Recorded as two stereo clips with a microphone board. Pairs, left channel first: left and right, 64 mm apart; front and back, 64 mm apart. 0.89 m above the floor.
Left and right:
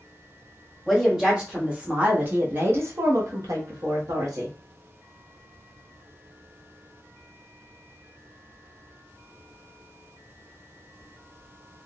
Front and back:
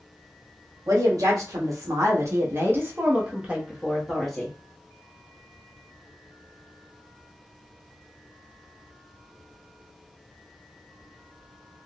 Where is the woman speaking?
175° right, 1.5 m; by 4.5 s 85° right, 1.3 m.